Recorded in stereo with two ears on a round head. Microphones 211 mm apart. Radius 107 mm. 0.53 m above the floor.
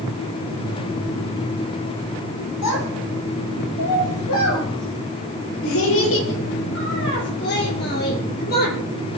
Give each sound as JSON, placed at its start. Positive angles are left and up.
{"t": 2.6, "sound": "a child speaking", "side_deg": 85, "distance_m": 9.5}